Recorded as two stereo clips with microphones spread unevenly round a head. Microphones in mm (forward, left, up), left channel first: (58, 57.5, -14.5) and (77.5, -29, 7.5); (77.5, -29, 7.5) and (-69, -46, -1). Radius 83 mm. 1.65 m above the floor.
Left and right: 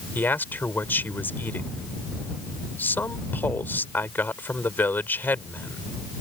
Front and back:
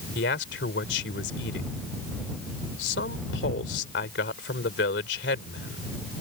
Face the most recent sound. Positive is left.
turn(degrees=30)